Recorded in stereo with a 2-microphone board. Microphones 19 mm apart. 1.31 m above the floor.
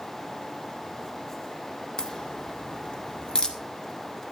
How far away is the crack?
About 1.6 m.